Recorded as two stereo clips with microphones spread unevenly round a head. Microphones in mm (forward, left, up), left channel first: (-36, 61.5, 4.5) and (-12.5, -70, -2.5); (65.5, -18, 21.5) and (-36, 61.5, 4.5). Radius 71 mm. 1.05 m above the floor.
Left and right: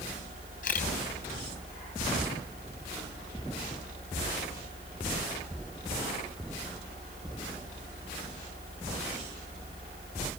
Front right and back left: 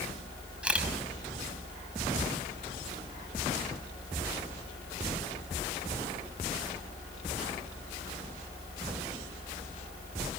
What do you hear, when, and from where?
0.6 s a camera shutter: 60° left, 6.5 m